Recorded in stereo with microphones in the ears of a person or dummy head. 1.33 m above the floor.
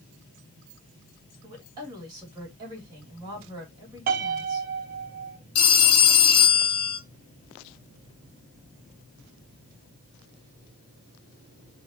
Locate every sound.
1.4 s a woman speaking: 20° right (ahead or behind), 2 m
4.1 s a piano: 45° right (ahead or behind), 0.7 m
5.5 s a phone ringing: 80° left, 1.6 m